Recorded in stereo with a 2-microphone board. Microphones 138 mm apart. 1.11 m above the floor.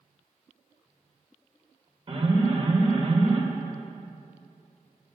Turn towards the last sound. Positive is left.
turn(degrees=-45)  # may be behind; listen again after turning